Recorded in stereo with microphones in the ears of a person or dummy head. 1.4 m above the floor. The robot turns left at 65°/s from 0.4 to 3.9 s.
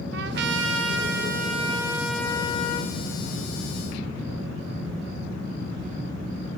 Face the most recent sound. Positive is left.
turn(degrees=70)